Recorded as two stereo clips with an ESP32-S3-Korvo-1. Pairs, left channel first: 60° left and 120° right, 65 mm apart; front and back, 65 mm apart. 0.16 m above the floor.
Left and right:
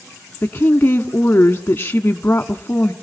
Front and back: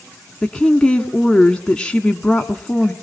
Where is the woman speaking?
65° left, 1.2 m.